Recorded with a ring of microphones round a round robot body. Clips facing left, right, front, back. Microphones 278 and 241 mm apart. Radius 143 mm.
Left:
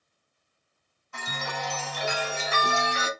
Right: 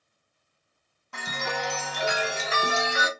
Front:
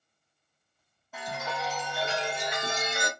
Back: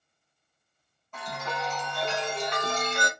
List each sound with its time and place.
1.1 s a chime: 80° right, 1.1 m